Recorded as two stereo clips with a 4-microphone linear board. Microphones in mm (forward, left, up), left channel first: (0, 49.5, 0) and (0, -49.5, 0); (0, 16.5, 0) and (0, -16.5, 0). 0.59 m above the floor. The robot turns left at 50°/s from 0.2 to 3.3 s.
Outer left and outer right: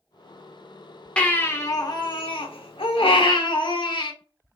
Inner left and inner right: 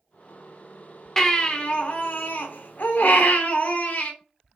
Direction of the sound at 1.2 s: 170° left.